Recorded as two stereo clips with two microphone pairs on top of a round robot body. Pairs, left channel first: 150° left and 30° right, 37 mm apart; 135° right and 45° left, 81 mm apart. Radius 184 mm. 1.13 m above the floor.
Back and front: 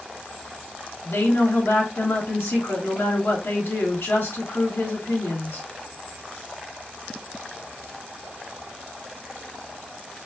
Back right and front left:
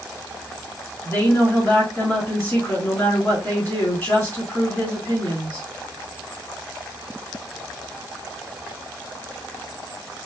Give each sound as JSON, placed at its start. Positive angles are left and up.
{"t": 1.0, "sound": "a woman speaking", "azimuth_deg": 155, "distance_m": 2.5}